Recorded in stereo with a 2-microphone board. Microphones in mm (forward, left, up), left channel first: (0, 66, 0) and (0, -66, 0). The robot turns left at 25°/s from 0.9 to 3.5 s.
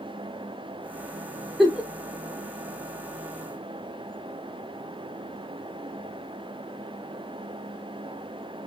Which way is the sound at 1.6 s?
Centre (ahead or behind).